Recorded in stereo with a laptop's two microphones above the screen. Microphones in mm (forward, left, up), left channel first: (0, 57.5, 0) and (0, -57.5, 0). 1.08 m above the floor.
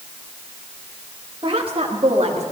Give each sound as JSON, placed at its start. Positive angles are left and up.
{"t": 1.4, "sound": "a woman speaking", "side_deg": -50, "distance_m": 1.1}